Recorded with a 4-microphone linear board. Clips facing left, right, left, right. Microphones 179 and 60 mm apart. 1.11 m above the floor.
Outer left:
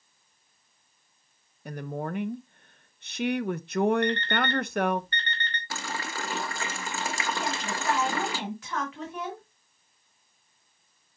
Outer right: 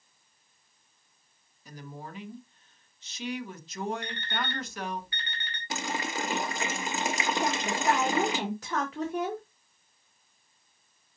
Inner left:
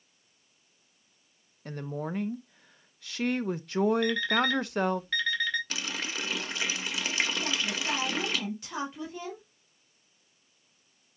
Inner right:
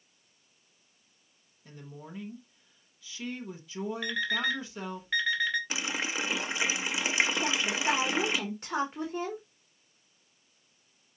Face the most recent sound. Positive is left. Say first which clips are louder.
# outer right 4 dB, inner right 3 dB
turn(degrees=-40)  # may be behind; listen again after turning